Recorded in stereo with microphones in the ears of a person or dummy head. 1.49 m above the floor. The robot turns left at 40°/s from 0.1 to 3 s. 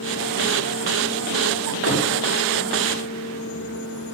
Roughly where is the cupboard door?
Left.